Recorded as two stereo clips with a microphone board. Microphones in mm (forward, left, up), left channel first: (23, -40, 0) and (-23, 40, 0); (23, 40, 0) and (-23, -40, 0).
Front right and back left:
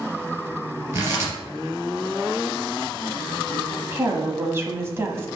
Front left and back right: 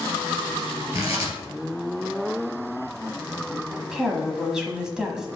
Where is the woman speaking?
160° left, 1.1 m.